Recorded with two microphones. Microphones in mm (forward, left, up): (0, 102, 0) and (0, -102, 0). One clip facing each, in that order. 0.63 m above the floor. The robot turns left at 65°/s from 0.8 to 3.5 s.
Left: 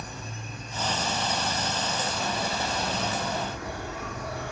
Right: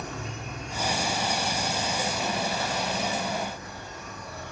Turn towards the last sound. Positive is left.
turn(degrees=100)